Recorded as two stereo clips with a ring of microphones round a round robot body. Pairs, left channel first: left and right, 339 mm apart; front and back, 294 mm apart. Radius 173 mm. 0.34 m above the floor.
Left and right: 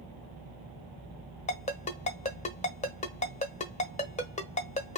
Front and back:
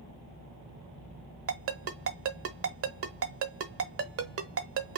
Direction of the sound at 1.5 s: 155° left.